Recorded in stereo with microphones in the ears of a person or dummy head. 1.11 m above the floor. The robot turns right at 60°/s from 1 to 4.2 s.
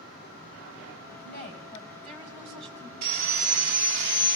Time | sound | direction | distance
1.2 | a woman speaking | 120° left | 6.5 m
3.0 | sawing | 125° right | 2.5 m